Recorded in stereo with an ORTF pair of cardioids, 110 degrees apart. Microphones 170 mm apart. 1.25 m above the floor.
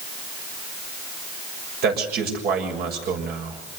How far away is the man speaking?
About 7 m.